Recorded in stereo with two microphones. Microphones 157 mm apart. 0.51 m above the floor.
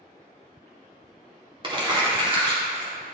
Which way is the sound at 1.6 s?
30° right (ahead or behind).